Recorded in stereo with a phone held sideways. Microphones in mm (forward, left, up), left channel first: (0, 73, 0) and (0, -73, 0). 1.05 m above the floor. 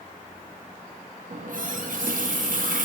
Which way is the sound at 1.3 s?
70° right (ahead or behind).